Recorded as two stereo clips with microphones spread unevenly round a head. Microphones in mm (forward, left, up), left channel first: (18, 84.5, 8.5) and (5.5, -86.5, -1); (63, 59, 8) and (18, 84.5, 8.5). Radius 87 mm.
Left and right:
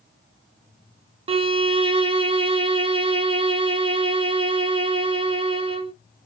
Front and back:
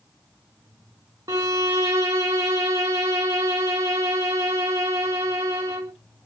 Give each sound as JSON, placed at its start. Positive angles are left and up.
{"t": 1.3, "sound": "a violin", "azimuth_deg": -155, "distance_m": 0.5}